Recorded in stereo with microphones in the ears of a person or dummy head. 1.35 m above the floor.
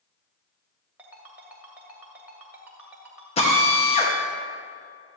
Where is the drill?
40° left (ahead or behind), 2 m.